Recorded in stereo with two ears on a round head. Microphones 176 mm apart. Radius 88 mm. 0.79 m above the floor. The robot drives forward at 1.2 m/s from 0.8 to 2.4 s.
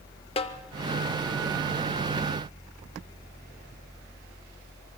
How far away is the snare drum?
About 0.6 m.